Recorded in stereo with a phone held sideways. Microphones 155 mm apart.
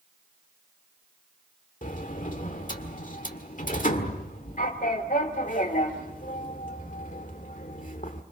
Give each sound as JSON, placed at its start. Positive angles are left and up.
{"t": 1.8, "sound": "a sliding door", "side_deg": 55, "distance_m": 1.8}